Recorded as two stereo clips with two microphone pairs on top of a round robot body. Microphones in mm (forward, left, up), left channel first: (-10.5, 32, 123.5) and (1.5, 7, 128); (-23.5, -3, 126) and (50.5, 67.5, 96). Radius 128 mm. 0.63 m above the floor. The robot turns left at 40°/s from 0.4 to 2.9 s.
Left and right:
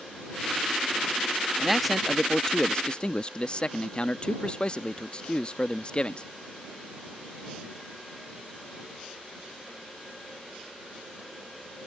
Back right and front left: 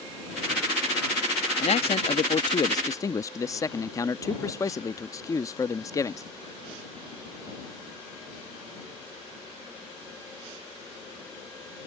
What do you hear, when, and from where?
1.6 s a man speaking: 150° right; by 6.3 s 160° left